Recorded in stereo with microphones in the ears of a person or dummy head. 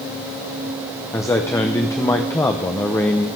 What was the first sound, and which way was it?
A man speaking, 15° left (ahead or behind).